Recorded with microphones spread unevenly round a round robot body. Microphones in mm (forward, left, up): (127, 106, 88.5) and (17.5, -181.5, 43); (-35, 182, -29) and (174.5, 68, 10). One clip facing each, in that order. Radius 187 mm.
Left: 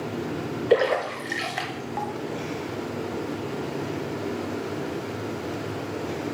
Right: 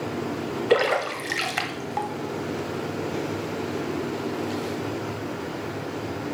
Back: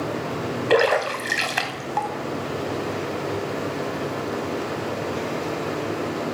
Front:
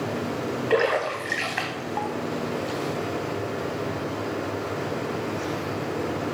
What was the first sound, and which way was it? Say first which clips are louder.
A splash: left 1 dB, back 4 dB; 175° right.